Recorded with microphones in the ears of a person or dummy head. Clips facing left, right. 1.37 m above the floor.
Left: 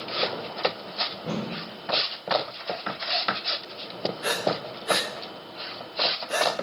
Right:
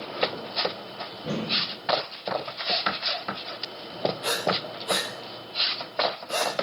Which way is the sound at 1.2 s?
Centre (ahead or behind).